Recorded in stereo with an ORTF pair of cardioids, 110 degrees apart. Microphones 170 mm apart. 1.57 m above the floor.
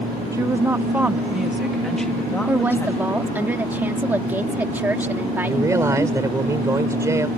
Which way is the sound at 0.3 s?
20° right.